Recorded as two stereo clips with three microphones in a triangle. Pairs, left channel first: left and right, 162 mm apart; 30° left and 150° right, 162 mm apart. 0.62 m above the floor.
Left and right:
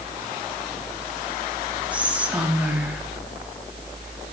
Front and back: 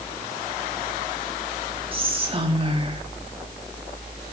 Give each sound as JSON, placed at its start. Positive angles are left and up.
{"t": 1.9, "sound": "whispering", "azimuth_deg": -165, "distance_m": 1.4}